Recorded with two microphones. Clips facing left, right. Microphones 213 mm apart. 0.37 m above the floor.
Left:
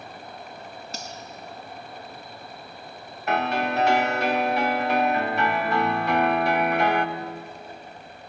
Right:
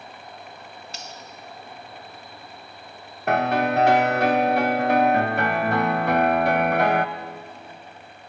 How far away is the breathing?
No breathing in this recording.